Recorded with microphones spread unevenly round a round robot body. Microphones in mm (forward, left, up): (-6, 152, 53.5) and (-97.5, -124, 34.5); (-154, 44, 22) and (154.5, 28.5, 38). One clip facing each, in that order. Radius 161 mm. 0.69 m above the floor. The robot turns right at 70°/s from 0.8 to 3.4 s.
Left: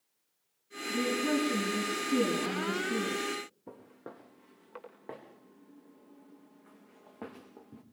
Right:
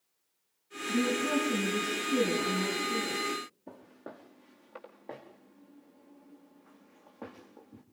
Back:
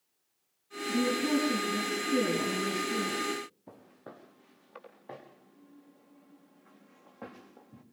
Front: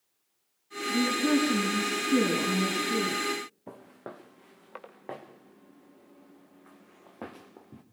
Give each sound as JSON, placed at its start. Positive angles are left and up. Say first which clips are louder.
{"t": 0.9, "sound": "a woman speaking", "louder": "right 1 dB, front 2 dB", "azimuth_deg": -125, "distance_m": 7.5}
{"t": 3.7, "sound": "footsteps", "louder": "even, front 6 dB", "azimuth_deg": -10, "distance_m": 5.0}